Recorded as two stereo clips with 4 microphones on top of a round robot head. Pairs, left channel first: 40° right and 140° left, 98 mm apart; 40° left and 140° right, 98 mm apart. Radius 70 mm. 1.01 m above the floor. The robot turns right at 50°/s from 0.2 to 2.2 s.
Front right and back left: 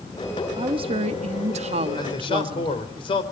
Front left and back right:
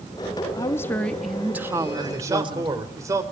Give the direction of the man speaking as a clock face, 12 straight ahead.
3 o'clock.